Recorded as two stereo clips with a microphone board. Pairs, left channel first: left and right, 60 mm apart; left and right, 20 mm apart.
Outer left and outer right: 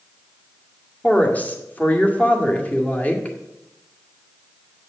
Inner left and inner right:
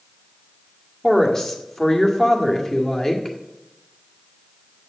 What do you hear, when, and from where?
1.0 s a woman speaking: 25° left (ahead or behind), 1.8 m